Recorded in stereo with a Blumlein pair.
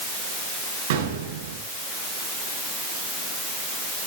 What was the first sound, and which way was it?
An explosion, 55° right.